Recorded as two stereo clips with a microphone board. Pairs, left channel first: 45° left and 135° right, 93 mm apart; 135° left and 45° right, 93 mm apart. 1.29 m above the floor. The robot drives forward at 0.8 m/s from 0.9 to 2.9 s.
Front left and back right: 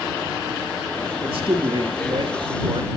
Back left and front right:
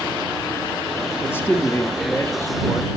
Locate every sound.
1.2 s a man speaking: 160° right, 2.0 m; by 2.9 s 165° right, 3 m